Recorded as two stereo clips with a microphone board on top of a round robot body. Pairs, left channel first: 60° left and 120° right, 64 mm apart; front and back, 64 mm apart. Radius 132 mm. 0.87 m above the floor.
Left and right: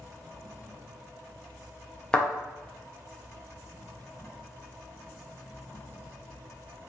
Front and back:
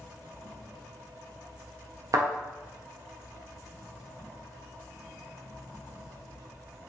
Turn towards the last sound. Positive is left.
turn(degrees=140)